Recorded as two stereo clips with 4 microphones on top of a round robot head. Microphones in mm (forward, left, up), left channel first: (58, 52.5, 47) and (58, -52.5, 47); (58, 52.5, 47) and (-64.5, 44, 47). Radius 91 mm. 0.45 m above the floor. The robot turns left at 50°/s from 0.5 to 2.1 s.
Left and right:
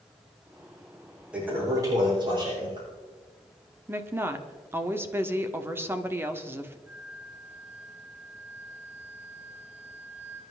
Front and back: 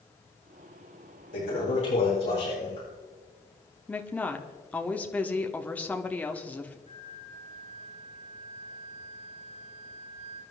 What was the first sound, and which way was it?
A toilet flushing, 10° right.